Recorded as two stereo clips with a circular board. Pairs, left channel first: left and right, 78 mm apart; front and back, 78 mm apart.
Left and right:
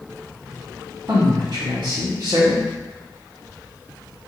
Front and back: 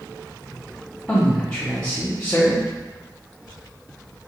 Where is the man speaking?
80° right, 1.2 m.